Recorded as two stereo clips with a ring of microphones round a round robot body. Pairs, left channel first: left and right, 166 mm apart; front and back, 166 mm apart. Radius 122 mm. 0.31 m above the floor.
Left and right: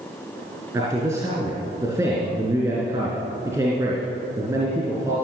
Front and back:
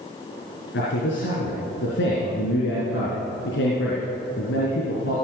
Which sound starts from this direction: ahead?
A man speaking, at 0.7 s.